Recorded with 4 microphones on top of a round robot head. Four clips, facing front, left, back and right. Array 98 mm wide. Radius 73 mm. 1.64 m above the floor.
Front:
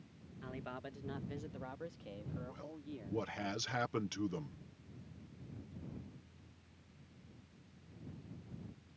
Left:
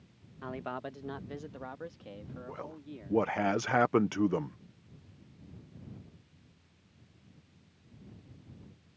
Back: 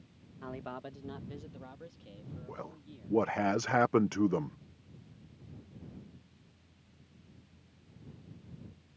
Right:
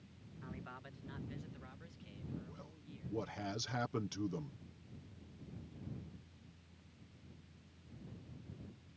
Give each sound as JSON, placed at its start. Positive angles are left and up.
{"t": 0.4, "sound": "a man speaking", "azimuth_deg": 115}
{"t": 2.5, "sound": "a man speaking", "azimuth_deg": 130}